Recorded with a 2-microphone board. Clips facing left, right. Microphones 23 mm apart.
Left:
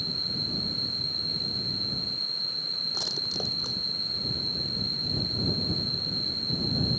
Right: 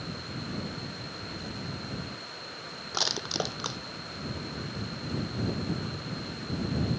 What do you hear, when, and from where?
0.0 s an insect: 55° left (ahead or behind)
2.9 s crushing: 50° right (ahead or behind)